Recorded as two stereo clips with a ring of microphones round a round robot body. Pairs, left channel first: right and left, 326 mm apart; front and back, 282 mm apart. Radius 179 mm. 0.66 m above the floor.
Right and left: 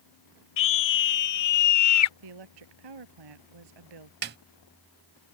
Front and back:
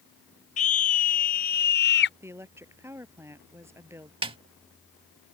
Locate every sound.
0.6 s a scream: 65° right; by 2.1 s 55° right
2.2 s a woman speaking: 100° left
4.2 s a snare drum: 125° left